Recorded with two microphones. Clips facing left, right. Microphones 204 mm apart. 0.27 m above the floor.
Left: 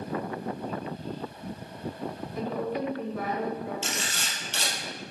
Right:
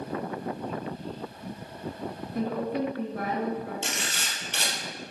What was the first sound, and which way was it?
A woman speaking, 50° right (ahead or behind).